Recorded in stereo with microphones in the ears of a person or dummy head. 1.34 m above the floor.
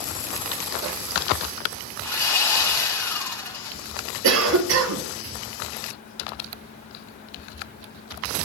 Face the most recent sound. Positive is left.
turn(degrees=-85)